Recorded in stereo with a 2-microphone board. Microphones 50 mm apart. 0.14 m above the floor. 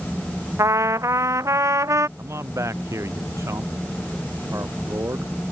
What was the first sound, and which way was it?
A trumpet, 80° right.